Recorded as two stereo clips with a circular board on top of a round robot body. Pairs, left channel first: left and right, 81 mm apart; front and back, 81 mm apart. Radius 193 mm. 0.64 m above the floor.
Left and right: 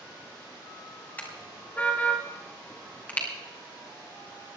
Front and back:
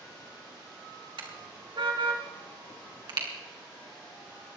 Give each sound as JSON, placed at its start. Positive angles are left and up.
{"t": 1.2, "sound": "a car horn", "azimuth_deg": 160, "distance_m": 2.5}